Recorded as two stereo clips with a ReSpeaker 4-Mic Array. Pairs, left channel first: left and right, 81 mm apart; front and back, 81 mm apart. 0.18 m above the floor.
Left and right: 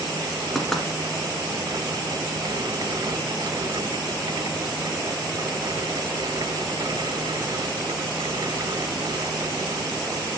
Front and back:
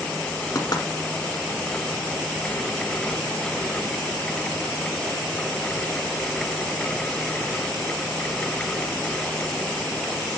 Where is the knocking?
5° left, 1.4 m.